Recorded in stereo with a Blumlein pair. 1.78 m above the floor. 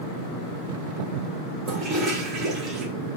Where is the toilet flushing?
25° right, 1.7 m.